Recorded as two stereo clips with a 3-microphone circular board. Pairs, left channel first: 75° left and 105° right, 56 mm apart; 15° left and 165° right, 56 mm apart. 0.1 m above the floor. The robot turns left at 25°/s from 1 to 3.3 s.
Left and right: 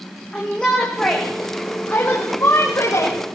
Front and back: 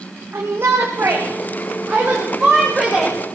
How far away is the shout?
About 5 m.